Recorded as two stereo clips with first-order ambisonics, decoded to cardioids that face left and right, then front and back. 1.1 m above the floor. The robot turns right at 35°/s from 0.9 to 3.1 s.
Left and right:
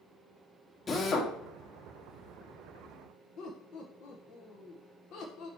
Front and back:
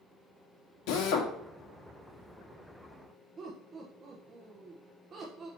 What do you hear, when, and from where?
0.9 s a drill: 20° left, 1.1 m; by 1.3 s 35° left, 1.1 m
3.4 s laughter: 125° left, 0.9 m